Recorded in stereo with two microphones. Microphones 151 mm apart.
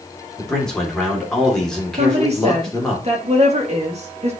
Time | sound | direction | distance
0.4 | a man speaking | 5° left (ahead or behind) | 2.5 m
2.0 | a woman speaking | 45° right (ahead or behind) | 1.9 m